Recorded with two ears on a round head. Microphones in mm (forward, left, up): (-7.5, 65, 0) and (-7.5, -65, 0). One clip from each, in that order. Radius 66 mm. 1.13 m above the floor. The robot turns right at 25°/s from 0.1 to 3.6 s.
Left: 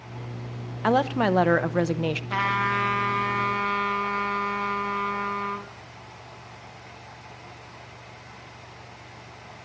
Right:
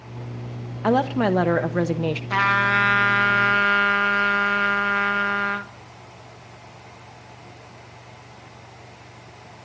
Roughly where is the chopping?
I don't hear chopping.